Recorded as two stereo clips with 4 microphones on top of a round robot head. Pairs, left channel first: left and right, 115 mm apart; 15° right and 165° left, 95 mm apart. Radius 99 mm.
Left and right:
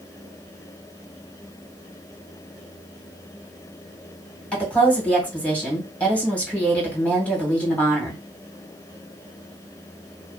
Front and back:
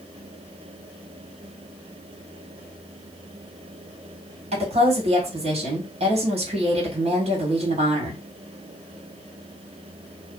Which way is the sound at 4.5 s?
170° left.